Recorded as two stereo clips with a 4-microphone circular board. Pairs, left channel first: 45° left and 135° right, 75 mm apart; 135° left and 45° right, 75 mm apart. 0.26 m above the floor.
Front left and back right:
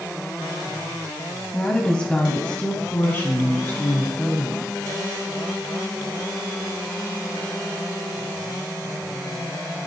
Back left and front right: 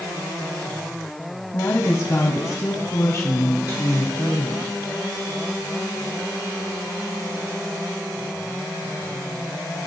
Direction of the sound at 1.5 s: 120° left.